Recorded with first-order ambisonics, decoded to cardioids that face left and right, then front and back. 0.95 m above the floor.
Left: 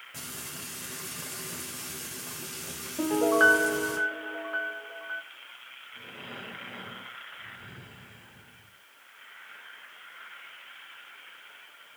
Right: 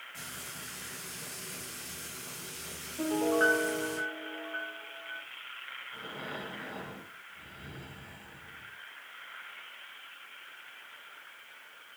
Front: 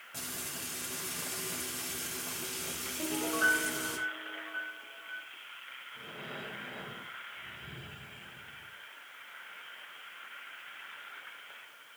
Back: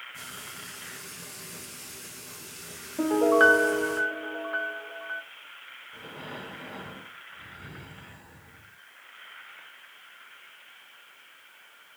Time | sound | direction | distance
0.1 | frying | 45° left | 3.5 m
3.0 | a piano | 150° left | 1.0 m
5.9 | breathing | 145° right | 2.5 m